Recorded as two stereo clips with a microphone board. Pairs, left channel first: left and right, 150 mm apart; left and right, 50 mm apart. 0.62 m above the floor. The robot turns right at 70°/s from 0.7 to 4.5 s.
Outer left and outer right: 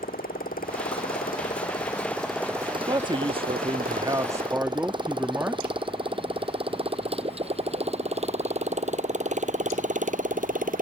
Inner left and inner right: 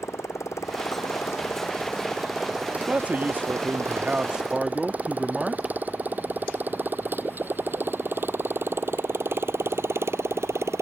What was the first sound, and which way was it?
A motorcycle, 75° left (ahead or behind).